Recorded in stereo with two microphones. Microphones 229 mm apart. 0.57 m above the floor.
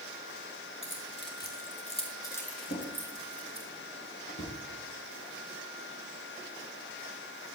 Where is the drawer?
50° left (ahead or behind), 4.5 m.